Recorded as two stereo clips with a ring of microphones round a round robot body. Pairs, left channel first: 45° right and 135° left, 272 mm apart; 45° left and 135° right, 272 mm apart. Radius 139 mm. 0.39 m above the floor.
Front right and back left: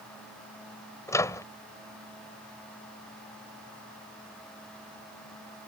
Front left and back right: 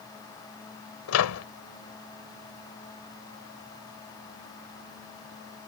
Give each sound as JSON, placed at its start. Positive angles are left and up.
{"t": 1.1, "sound": "a microwave", "azimuth_deg": 35}